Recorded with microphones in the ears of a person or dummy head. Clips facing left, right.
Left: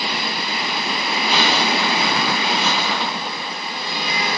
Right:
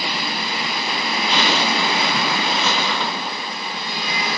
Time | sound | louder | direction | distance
1.3 | a zipper | left 1 dB | 15° left (ahead or behind) | 4.5 m